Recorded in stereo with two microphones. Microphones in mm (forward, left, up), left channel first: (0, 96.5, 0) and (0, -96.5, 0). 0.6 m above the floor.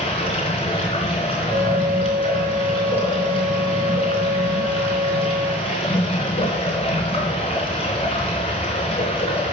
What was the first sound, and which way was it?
Running water, 35° left (ahead or behind).